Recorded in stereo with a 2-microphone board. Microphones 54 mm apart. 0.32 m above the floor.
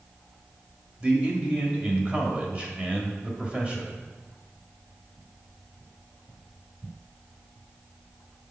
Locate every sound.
1.0 s a man speaking: 25° right (ahead or behind), 1.4 m